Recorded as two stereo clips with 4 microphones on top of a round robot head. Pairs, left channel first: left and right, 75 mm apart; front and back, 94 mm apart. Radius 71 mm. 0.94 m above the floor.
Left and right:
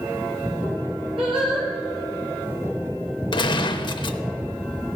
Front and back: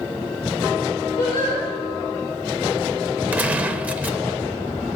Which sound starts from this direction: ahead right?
Singing, at 1.2 s.